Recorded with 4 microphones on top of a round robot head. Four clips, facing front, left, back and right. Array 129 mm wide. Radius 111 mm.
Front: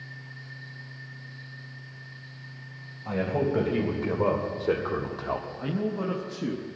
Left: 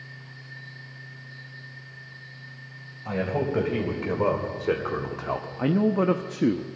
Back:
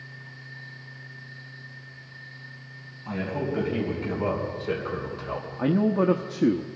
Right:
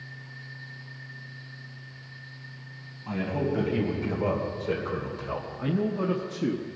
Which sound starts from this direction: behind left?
A man speaking, at 5.6 s.